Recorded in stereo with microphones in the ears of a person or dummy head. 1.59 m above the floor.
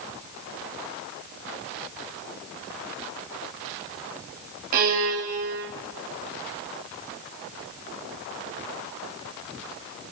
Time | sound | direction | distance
4.7 | a violin | 45° right (ahead or behind) | 9.5 m